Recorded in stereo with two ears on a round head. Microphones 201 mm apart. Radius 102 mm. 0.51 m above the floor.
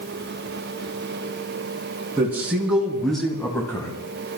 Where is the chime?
No chime in this recording.